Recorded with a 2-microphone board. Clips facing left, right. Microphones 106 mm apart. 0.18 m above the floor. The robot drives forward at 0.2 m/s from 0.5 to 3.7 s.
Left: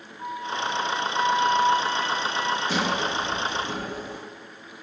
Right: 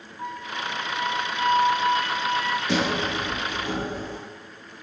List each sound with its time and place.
0.2 s a flute: 65° right (ahead or behind), 1.7 m; by 2.6 s 55° right (ahead or behind), 1.9 m
2.7 s a sliding door: 70° right (ahead or behind), 3.5 m; by 4.2 s 65° right (ahead or behind), 3.5 m